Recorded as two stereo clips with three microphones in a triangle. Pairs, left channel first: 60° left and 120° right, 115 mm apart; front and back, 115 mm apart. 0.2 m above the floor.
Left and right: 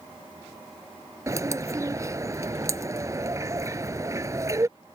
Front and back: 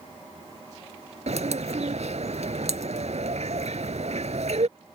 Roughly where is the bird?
Behind.